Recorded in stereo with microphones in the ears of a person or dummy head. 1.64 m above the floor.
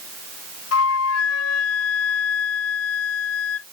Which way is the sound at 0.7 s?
80° left.